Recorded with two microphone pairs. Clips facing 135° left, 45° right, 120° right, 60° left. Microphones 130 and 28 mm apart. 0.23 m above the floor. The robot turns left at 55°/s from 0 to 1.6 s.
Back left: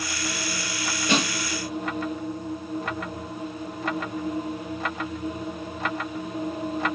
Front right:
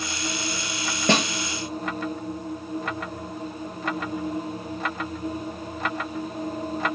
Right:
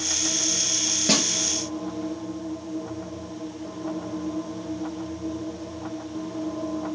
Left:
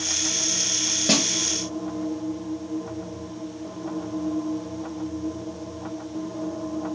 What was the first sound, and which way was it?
A snare drum, 30° right.